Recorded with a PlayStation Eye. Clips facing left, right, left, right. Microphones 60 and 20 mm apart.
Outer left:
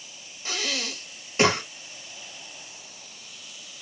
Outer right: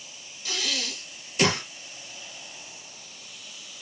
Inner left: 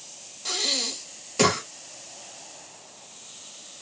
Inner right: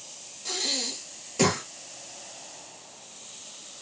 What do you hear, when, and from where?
0.5 s breathing: 35° left (ahead or behind), 0.9 m